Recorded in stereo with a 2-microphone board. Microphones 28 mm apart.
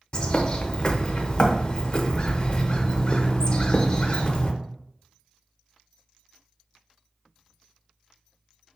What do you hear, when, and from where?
0.1 s a bird: 35° left (ahead or behind), 0.6 m